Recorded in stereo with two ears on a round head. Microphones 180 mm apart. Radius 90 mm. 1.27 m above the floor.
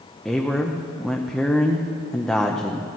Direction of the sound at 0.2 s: 5° left (ahead or behind).